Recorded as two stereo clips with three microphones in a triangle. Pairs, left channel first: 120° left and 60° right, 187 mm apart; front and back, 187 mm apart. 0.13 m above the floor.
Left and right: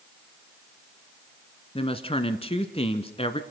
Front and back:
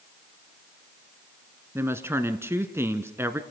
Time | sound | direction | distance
1.8 | a woman speaking | 115° left | 1.2 m